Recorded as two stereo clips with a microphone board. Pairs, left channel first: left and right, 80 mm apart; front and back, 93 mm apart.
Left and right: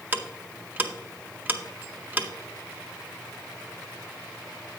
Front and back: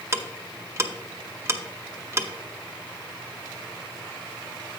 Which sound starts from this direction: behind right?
Ticking, at 0.1 s.